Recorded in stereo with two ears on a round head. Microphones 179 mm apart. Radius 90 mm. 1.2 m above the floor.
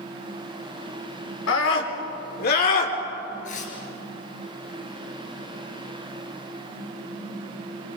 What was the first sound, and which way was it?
A scream, 75° left (ahead or behind).